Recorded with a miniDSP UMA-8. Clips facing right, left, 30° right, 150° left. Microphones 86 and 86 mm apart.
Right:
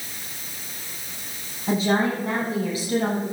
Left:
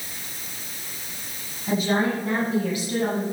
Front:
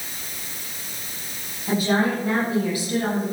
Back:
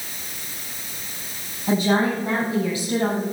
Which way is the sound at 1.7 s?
145° right.